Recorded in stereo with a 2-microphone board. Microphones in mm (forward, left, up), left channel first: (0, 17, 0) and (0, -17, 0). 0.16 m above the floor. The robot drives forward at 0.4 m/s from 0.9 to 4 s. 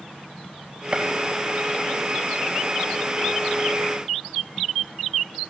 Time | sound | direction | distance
0.9 | a gunshot | 35° right (ahead or behind) | 4.5 m